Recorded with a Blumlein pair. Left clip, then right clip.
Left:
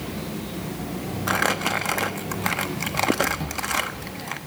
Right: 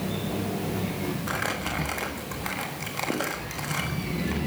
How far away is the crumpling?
About 1.4 m.